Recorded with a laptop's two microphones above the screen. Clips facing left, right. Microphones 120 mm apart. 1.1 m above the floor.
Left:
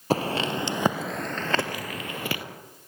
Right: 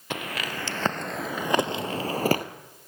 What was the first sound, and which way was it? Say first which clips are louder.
Footsteps: left 8 dB; 35° left (ahead or behind).